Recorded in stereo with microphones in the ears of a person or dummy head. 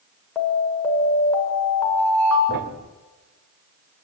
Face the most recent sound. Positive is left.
turn(degrees=-60)  # may be behind; listen again after turning